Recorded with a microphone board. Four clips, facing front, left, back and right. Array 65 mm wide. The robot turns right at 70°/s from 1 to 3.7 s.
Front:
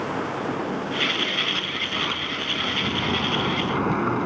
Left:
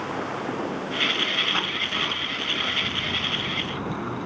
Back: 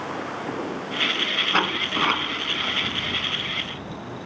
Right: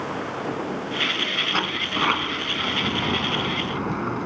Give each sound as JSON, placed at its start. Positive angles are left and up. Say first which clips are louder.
{"t": 1.5, "sound": "a sliding door", "louder": "right 2 dB, back 5 dB", "azimuth_deg": -165}